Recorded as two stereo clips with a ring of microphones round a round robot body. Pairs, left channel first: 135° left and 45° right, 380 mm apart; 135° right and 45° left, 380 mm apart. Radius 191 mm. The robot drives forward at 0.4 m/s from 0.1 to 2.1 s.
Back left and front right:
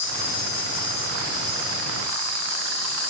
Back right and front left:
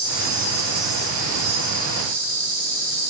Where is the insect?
150° left, 1.9 m; by 3.1 s 160° left, 2.5 m.